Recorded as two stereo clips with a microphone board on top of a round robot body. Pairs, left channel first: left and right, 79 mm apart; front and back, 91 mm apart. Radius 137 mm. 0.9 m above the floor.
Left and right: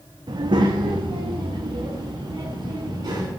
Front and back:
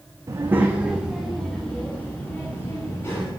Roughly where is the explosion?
I don't hear an explosion.